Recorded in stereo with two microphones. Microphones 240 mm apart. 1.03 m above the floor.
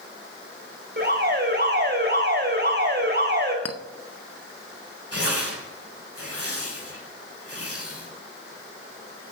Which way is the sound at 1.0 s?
45° right (ahead or behind).